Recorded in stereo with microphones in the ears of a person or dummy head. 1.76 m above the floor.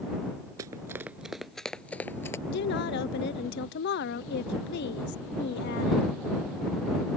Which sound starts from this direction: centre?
Running footsteps, at 0.6 s.